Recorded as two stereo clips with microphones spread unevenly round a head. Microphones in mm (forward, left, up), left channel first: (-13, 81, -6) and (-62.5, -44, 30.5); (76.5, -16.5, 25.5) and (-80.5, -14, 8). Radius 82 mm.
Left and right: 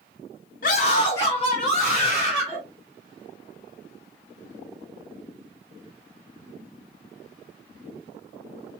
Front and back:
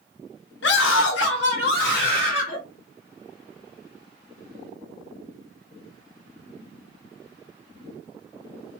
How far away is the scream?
About 0.6 m.